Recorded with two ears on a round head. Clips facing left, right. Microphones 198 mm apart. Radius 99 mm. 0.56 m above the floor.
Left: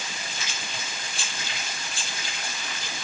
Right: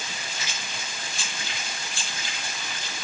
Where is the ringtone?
No ringtone in this recording.